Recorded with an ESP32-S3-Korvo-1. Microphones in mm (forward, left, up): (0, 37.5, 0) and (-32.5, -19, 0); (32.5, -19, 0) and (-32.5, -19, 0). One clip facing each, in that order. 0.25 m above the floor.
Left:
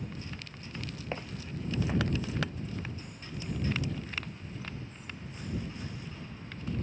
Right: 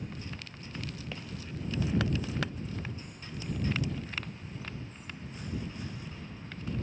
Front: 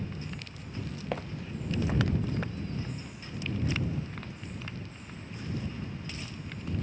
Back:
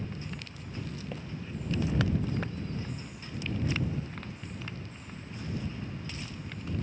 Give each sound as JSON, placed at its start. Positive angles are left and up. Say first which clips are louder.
{"t": 1.1, "sound": "footsteps", "louder": "left 3 dB, front 3 dB", "azimuth_deg": 5}